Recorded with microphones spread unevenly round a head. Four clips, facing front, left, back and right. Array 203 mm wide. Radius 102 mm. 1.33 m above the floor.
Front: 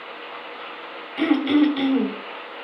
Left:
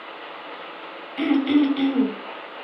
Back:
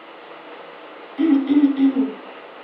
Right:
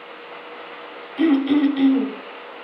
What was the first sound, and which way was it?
Throat clearing, 5° left.